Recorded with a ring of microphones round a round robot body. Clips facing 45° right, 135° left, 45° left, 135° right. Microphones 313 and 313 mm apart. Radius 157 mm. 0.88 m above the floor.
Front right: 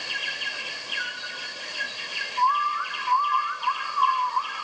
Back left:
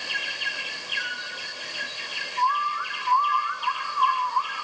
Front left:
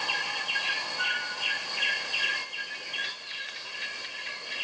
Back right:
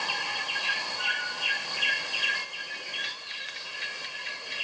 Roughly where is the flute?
Left.